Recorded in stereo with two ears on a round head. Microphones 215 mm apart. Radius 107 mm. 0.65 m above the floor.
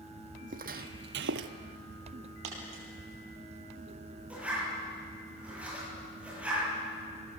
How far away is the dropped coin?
About 6 m.